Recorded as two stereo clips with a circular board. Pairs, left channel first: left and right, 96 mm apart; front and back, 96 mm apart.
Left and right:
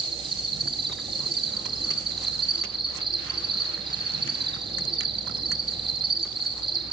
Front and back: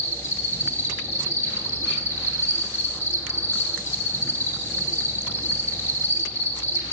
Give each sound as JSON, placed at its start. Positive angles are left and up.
{"t": 0.0, "sound": "an insect", "azimuth_deg": -60, "distance_m": 8.0}